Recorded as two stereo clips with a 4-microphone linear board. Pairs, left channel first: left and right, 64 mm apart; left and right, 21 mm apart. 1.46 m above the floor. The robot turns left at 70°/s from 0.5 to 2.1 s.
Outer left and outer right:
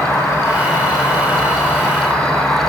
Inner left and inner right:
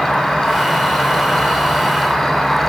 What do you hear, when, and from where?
0.0 s an insect: 135° left, 2.0 m; by 2.7 s 25° left, 2.0 m